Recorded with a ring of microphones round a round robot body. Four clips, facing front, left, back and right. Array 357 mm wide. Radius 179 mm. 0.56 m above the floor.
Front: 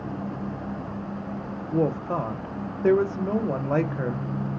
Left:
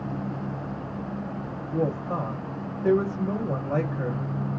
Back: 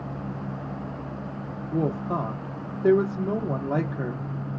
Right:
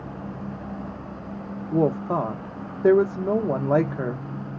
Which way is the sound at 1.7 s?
80° right.